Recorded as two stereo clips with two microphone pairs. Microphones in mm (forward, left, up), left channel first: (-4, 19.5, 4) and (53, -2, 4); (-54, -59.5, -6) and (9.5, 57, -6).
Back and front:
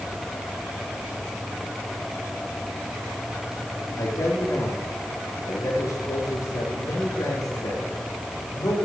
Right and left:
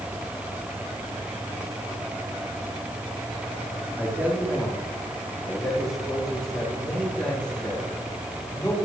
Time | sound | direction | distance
4.0 | a man speaking | 135° left | 4.5 m